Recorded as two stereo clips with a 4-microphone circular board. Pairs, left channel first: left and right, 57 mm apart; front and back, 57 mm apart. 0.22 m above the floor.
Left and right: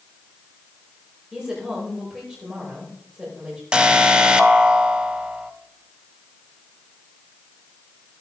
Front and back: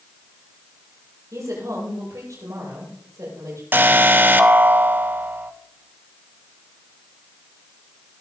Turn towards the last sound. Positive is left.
turn(degrees=-155)